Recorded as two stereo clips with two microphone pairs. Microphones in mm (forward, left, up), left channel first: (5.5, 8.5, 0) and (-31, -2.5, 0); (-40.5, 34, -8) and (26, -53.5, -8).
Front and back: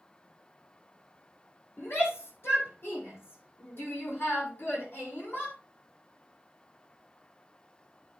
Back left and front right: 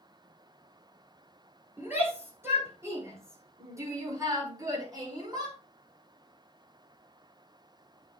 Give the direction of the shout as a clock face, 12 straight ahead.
11 o'clock.